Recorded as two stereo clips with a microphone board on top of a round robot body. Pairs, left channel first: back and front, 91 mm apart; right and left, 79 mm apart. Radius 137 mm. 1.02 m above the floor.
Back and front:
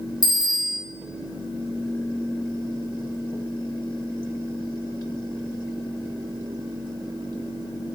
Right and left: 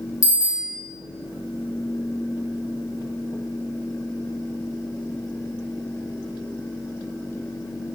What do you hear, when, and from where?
0.2 s a bicycle bell: 130° right, 6.5 m